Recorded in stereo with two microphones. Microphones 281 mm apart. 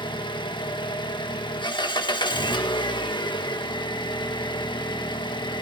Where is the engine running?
15° left (ahead or behind), 1.1 m.